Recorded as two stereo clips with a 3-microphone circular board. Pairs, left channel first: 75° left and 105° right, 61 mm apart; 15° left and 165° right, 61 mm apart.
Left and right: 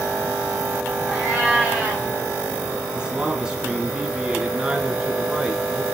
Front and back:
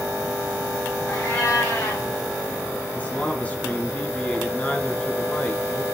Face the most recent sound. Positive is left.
turn(degrees=-40)